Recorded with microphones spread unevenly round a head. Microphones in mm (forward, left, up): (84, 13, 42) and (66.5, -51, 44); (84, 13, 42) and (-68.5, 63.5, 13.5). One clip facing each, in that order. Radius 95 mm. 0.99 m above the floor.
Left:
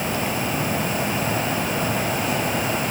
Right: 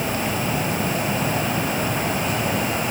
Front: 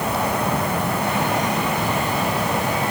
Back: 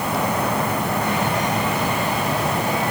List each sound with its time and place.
Only background noise.